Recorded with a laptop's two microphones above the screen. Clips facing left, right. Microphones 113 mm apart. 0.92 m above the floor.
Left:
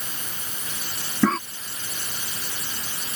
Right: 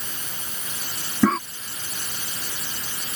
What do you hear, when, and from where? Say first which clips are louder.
1.2 s a cough: right 1 dB; 10° right (ahead or behind)